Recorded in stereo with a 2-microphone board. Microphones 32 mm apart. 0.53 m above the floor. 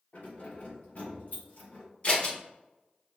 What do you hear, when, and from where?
0.1 s keys jangling: 55° left (ahead or behind), 1.9 m; by 1.9 s 60° left (ahead or behind), 3 m
2.0 s scissors: 40° left (ahead or behind), 1.3 m